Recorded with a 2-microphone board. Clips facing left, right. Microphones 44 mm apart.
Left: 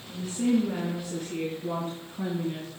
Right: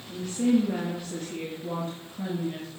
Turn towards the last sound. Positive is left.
turn(degrees=40)  # may be behind; listen again after turning